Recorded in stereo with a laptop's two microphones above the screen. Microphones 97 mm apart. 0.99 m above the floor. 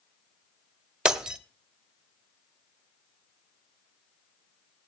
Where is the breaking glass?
10° right (ahead or behind), 1.2 m.